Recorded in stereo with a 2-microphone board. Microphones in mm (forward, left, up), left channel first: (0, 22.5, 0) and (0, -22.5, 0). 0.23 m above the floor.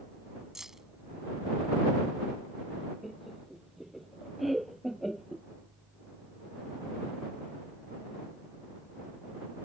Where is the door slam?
I don't hear a door slam.